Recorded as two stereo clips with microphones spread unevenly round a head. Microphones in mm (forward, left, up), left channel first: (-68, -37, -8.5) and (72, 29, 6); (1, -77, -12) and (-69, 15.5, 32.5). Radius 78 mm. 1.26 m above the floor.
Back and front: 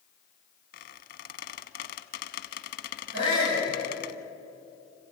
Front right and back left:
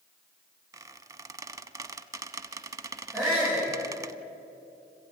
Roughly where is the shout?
Ahead left.